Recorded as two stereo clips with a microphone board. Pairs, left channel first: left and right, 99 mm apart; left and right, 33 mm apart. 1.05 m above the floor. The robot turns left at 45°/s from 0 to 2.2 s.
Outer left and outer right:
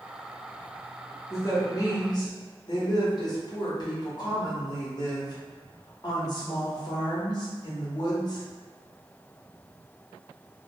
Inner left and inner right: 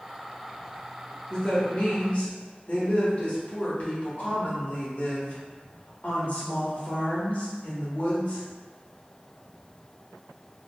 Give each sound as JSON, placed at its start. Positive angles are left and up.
{"t": 1.3, "sound": "a woman speaking", "azimuth_deg": 140, "distance_m": 0.9}